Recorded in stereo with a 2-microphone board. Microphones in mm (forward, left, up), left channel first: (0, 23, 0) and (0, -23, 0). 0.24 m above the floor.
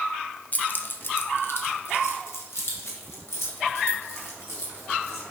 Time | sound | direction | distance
0.5 | keys jangling | 35° left (ahead or behind) | 0.7 m